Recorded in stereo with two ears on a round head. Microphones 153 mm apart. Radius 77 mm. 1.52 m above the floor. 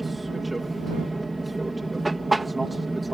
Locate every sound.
0.0 s an aircraft: centre (ahead or behind)